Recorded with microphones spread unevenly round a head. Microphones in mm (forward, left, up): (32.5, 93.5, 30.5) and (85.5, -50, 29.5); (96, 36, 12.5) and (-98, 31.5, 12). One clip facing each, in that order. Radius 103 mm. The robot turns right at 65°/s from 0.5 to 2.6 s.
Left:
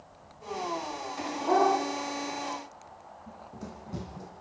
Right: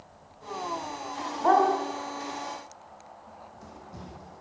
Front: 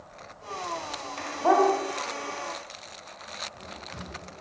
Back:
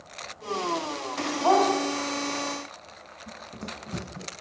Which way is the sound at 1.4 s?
75° right.